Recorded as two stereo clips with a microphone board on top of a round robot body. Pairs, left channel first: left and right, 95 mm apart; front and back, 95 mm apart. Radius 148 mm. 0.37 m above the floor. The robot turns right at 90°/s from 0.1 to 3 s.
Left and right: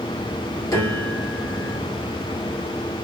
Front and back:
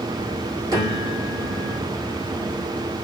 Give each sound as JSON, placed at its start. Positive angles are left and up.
{"t": 0.7, "sound": "a piano", "azimuth_deg": 140, "distance_m": 2.5}